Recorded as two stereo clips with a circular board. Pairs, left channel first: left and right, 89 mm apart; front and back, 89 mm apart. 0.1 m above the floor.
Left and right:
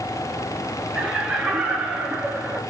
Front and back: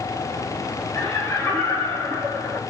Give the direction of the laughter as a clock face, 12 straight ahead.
1 o'clock.